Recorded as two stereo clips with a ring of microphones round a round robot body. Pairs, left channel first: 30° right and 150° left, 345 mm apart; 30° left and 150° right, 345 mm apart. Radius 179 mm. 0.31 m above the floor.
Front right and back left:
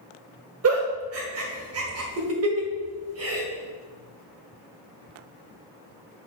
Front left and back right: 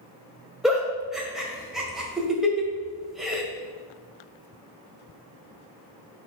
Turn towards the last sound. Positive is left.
turn(degrees=120)